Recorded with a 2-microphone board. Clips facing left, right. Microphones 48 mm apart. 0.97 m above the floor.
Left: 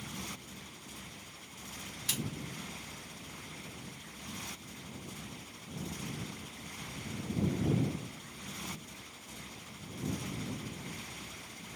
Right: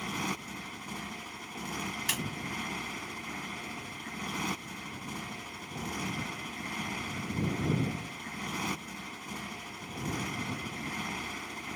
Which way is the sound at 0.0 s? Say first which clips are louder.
Right 9 dB; 80° right.